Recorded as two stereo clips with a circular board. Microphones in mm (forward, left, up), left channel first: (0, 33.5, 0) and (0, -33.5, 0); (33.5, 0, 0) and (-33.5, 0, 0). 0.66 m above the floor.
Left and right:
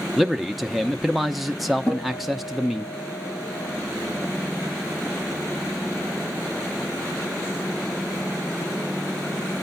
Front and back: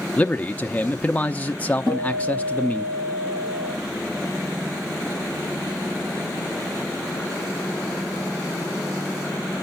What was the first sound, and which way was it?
A man speaking, 5° right.